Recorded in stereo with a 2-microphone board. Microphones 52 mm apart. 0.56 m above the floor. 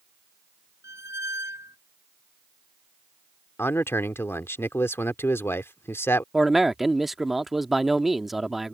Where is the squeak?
65° right (ahead or behind).